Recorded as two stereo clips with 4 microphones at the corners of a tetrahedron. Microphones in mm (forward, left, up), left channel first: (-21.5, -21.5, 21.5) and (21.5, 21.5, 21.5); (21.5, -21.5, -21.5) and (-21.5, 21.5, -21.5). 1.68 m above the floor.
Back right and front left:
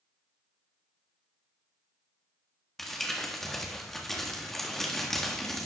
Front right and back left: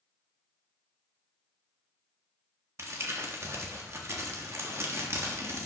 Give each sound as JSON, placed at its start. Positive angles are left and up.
{"t": 2.8, "sound": "crumpling", "azimuth_deg": 140, "distance_m": 1.4}